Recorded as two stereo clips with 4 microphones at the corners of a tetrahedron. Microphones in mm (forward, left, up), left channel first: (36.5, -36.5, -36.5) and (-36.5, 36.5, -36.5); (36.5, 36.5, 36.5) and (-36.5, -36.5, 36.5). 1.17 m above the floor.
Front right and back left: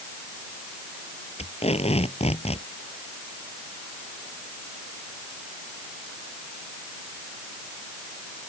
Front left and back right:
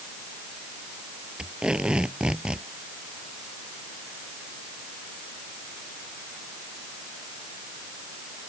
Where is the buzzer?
No buzzer in this recording.